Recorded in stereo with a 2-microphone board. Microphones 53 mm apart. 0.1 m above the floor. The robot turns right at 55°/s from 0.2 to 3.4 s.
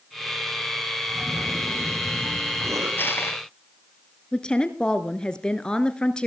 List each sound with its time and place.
1.1 s a cough: 165° left, 8.5 m; by 2.9 s 95° right, 8.5 m
3.0 s crushing: 40° left (ahead or behind), 2 m; by 3.4 s 50° left (ahead or behind), 2 m
4.3 s a woman speaking: 15° left (ahead or behind), 1.5 m